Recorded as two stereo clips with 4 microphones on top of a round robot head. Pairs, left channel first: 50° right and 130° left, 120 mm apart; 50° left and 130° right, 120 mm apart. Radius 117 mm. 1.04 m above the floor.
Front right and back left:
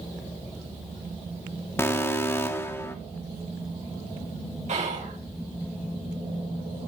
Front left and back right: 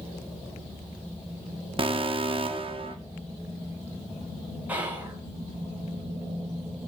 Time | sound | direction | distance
1.8 | an alarm | 115° right | 2 m
4.7 | whispering | 155° left | 5 m